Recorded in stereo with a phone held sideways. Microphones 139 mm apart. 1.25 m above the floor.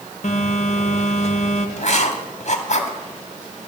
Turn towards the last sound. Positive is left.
turn(degrees=55)  # may be behind; listen again after turning